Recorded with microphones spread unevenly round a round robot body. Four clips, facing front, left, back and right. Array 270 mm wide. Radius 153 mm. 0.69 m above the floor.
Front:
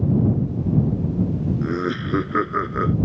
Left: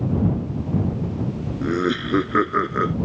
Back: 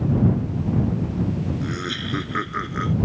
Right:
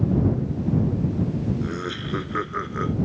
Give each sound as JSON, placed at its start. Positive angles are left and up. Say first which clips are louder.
{"t": 1.6, "sound": "laughter", "louder": "left 7 dB, front 5 dB", "azimuth_deg": 70}